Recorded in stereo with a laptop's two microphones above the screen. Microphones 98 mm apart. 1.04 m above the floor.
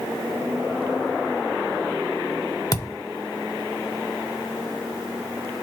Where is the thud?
35° left (ahead or behind), 0.9 m.